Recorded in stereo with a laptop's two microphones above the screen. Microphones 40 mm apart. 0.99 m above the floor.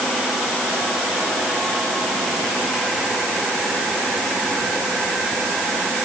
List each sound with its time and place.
Only background noise.